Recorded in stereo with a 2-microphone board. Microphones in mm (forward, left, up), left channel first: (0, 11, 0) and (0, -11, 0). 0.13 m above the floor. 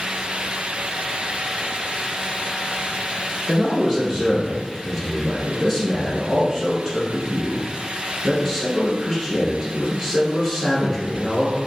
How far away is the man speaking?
About 1.4 m.